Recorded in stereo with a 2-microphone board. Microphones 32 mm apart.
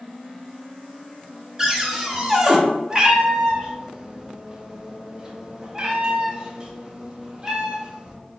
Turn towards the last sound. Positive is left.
turn(degrees=-25)  # may be behind; listen again after turning